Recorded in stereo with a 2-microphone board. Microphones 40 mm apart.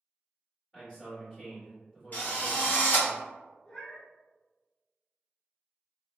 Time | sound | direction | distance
0.7 | a man speaking | 10° left (ahead or behind) | 1.8 m
2.1 | a drill | 45° left (ahead or behind) | 1.3 m
3.6 | a cat meowing | 20° left (ahead or behind) | 0.7 m